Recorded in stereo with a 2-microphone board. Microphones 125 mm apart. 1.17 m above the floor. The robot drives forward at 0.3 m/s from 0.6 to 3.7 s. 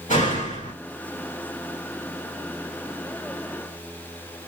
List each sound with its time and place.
0.1 s a door slam: 85° left, 2 m